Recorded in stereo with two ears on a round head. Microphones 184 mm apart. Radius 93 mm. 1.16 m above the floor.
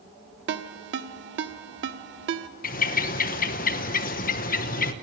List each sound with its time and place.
0.5 s a ringtone: 60° right (ahead or behind), 1.1 m
2.6 s a bird: 45° left (ahead or behind), 1.0 m